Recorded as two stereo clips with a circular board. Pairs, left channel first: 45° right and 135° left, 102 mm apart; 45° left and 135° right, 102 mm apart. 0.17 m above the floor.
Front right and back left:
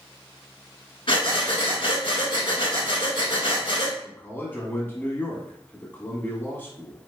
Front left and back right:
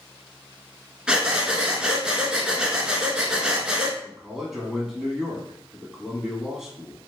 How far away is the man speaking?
About 1.1 m.